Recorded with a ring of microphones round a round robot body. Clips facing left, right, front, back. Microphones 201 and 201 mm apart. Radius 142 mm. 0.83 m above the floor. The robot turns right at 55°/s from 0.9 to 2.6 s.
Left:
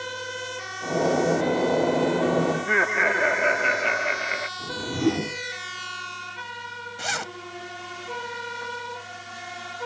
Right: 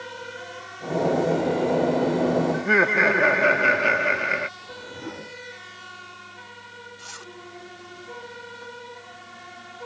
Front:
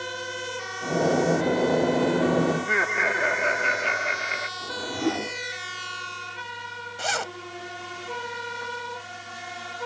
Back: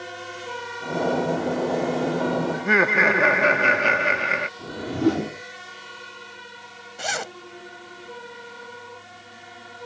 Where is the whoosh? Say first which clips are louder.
Left 13 dB, back 5 dB; 125° left.